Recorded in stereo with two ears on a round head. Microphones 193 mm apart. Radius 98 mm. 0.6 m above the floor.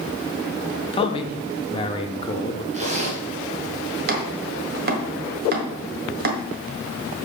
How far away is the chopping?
About 1.5 m.